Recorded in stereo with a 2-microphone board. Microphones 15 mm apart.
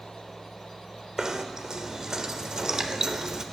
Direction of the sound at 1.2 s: 45° right (ahead or behind).